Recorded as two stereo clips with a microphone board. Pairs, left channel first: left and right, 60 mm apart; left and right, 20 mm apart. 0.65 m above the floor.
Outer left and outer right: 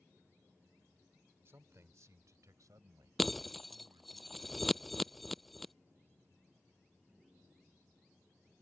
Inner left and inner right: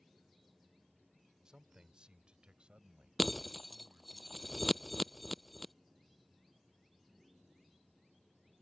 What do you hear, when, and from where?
1.4 s a man speaking: 45° right (ahead or behind); by 4.2 s 75° right (ahead or behind)
3.2 s breaking glass: centre (ahead or behind)